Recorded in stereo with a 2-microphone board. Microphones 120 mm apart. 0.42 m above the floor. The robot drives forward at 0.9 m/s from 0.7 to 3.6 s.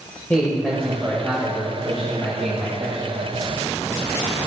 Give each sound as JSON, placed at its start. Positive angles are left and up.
{"t": 0.3, "sound": "a man speaking", "side_deg": 10, "distance_m": 2.0}